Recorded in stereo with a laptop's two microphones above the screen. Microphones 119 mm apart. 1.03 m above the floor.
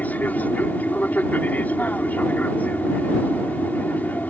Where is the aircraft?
15° left (ahead or behind).